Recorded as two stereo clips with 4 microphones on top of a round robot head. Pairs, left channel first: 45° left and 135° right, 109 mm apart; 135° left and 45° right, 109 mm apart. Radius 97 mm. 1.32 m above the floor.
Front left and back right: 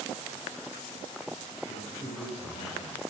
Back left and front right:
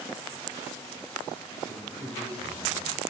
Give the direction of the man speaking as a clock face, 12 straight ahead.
10 o'clock.